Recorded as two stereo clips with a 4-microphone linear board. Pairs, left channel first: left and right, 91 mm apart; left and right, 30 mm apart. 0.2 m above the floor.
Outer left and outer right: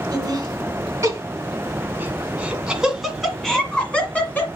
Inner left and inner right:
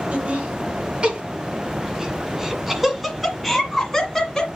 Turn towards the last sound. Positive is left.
turn(degrees=20)  # may be behind; listen again after turning